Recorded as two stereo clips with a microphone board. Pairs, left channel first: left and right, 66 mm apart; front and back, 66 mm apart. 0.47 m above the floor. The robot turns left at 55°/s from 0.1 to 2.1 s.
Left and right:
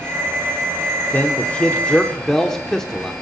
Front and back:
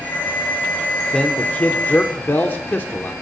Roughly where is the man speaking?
Ahead left.